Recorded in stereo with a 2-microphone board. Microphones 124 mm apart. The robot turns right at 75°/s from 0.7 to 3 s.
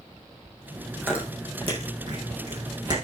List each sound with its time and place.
1.0 s chewing: centre (ahead or behind), 4 m; by 3.0 s 30° right (ahead or behind), 4 m